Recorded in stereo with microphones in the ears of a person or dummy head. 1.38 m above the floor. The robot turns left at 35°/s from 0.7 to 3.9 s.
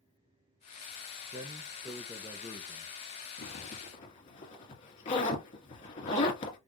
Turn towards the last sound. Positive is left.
turn(degrees=35)  # may be behind; listen again after turning